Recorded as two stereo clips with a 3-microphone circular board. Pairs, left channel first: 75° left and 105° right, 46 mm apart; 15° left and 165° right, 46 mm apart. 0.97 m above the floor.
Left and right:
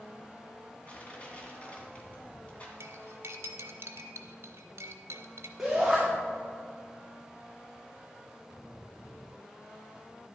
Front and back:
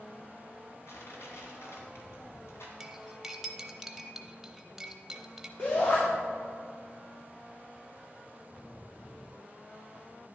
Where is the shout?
20° right, 2 m.